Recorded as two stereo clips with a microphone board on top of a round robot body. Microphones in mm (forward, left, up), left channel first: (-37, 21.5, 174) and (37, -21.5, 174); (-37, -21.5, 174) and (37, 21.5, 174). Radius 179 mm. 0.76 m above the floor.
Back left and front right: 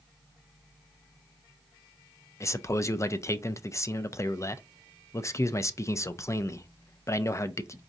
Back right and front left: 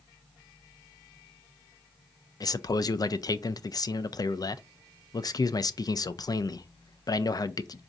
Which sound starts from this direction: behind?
A man speaking, at 2.4 s.